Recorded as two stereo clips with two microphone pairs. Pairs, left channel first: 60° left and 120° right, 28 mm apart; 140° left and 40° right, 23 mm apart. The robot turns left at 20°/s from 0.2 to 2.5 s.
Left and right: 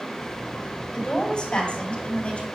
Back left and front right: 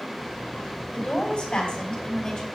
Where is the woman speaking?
125° left, 2.5 m; by 2.5 s 95° left, 2.5 m.